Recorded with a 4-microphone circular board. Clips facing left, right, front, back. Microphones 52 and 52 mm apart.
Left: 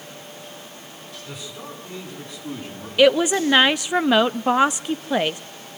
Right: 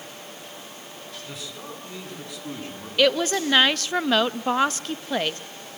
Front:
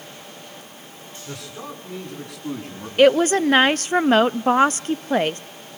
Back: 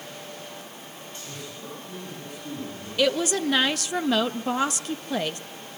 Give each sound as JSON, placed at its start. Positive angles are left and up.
{"t": 1.3, "sound": "a man speaking", "azimuth_deg": 0, "distance_m": 9.0}
{"t": 3.0, "sound": "a woman speaking", "azimuth_deg": 20, "distance_m": 0.5}